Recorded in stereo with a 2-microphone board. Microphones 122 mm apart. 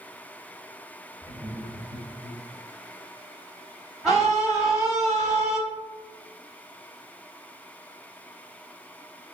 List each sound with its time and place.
1.2 s laughter: 20° right (ahead or behind), 1.8 m; by 2.4 s 40° right (ahead or behind), 1.6 m
4.0 s a scream: centre (ahead or behind), 3.5 m